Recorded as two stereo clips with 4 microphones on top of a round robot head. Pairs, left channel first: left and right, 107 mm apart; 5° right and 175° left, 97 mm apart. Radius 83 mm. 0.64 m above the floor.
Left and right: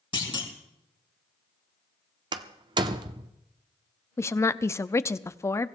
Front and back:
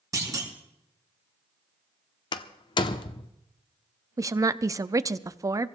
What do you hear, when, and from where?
0.1 s a clunk: 125° left, 3 m
2.3 s a door slam: 40° right, 0.7 m
4.2 s a woman speaking: 145° left, 0.7 m